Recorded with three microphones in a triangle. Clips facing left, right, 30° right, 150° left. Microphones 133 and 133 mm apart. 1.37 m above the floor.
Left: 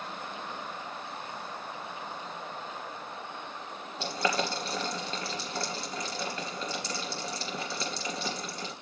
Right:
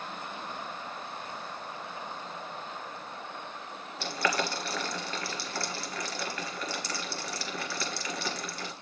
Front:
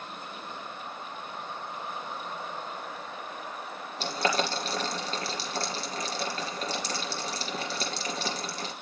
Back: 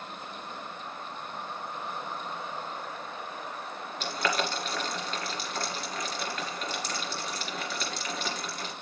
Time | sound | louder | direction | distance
4.0 | boiling | left 1 dB, front 2 dB | 25° left | 2.5 m